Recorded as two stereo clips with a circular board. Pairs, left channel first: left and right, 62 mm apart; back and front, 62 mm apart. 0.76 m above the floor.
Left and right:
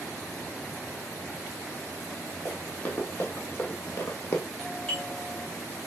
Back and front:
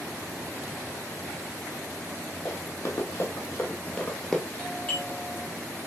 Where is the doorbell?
150° left, 1.7 m.